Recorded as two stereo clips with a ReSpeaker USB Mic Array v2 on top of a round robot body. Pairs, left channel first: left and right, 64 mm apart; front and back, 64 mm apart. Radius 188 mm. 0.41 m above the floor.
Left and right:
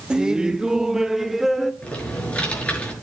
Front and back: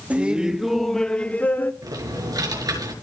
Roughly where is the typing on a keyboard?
Behind.